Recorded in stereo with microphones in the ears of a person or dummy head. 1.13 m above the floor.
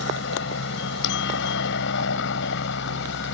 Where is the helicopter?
65° left (ahead or behind).